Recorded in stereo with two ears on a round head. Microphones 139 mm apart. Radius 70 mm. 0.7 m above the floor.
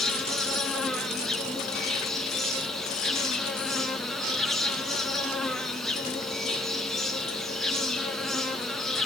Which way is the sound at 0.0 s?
5° left (ahead or behind).